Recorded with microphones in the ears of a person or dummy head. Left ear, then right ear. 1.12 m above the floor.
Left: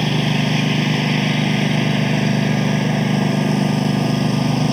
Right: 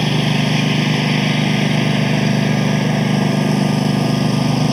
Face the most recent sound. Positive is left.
turn(degrees=-5)  # may be behind; listen again after turning